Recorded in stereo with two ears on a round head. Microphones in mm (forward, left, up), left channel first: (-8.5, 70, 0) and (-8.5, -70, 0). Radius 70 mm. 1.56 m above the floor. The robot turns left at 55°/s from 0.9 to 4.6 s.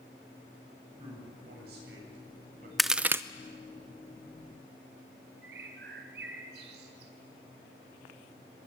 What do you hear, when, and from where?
1.0 s a man speaking: 30° right (ahead or behind), 8.5 m; by 2.7 s 55° right (ahead or behind), 8.5 m
2.8 s a crack: centre (ahead or behind), 0.6 m; by 3.2 s 15° right (ahead or behind), 0.6 m
5.4 s a bird: 75° right (ahead or behind), 4 m